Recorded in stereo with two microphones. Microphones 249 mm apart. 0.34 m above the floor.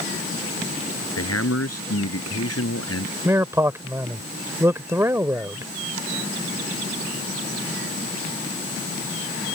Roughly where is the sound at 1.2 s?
Left.